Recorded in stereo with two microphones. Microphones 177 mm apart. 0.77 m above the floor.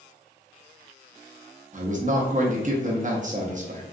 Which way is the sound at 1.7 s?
45° right (ahead or behind).